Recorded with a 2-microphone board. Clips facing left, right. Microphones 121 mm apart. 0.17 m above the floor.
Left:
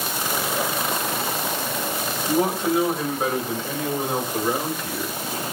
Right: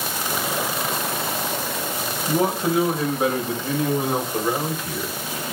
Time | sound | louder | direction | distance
2.3 | a man speaking | even | 10° right (ahead or behind) | 7 m